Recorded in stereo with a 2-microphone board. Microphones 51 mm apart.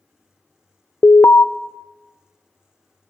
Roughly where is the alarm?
Left.